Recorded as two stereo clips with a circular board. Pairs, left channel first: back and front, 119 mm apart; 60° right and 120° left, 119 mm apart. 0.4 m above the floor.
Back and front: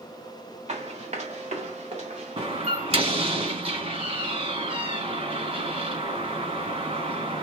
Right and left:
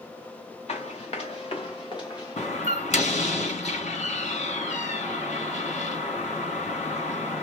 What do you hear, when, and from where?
0.7 s running footsteps: 25° right, 2 m; by 2.5 s straight ahead, 1.4 m
2.4 s a door slam: 35° right, 3.5 m